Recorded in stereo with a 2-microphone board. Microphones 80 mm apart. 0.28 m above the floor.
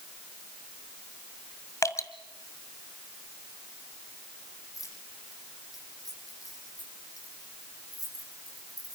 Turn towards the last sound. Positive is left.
turn(degrees=45)  # may be behind; listen again after turning